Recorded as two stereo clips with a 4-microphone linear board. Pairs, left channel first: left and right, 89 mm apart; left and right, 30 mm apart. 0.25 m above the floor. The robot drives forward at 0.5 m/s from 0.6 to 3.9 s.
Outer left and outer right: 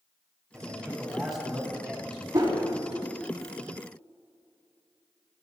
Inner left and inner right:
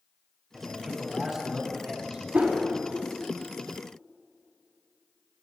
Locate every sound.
0.5 s a man speaking: centre (ahead or behind), 2 m
2.3 s a whoosh: 40° right (ahead or behind), 1.4 m; by 2.6 s 35° right (ahead or behind), 1.5 m